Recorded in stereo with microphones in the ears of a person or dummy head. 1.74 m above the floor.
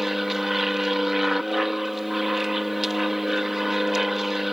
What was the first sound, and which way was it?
An aircraft, centre (ahead or behind).